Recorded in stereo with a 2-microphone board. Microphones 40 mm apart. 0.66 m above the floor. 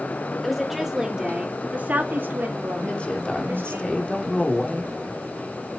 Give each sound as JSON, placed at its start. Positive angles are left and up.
{"t": 0.4, "sound": "a woman speaking", "side_deg": 0, "distance_m": 2.5}
{"t": 2.8, "sound": "a woman speaking", "side_deg": 30, "distance_m": 2.0}